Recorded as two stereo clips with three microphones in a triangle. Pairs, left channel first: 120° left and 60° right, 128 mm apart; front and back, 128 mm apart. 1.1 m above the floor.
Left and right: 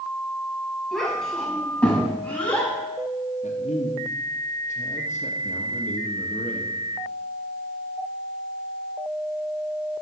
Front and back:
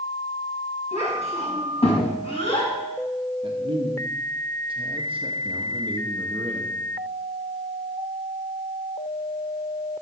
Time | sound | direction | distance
0.9 | a child speaking | 35° left | 5 m
3.4 | a man speaking | 135° left | 1.4 m